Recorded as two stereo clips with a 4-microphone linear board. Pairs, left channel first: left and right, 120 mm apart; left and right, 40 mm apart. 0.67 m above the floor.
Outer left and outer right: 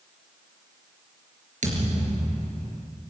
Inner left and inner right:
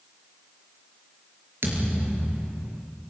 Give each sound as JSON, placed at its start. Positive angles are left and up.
{"t": 1.6, "sound": "a thud", "side_deg": -90, "distance_m": 5.0}